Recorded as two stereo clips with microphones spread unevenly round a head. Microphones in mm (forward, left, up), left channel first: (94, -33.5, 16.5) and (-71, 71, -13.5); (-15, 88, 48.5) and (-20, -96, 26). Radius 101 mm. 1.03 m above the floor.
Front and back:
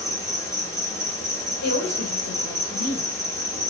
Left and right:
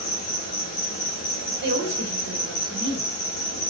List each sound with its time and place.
0.0 s an insect: 40° left, 1.1 m
1.6 s a woman speaking: 60° right, 1.1 m